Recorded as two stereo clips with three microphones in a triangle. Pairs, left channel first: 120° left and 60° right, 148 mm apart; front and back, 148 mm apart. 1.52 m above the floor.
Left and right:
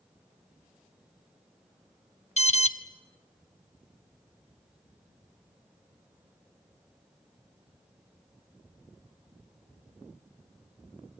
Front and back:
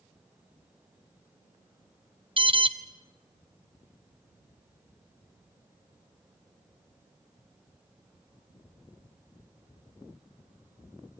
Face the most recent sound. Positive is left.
turn(degrees=135)